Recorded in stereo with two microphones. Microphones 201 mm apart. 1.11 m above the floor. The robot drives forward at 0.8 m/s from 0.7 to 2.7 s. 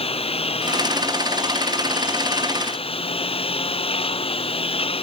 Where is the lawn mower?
30° left (ahead or behind).